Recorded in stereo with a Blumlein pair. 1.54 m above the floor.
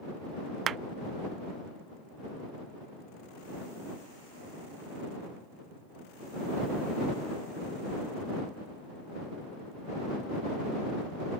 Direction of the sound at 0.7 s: 25° right.